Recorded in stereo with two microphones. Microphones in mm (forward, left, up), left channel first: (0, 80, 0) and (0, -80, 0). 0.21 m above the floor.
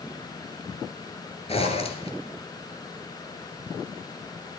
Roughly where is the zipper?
Left.